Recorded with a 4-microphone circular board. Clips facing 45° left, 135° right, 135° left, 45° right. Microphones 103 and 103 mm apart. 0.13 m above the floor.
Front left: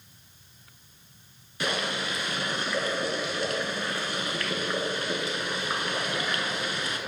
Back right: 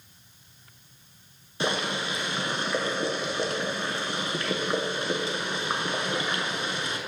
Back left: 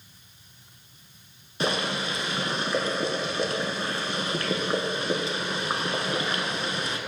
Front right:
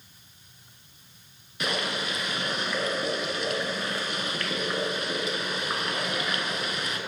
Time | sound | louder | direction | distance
1.6 | boiling | back right 2 dB, back left 3 dB | 175° left | 0.7 m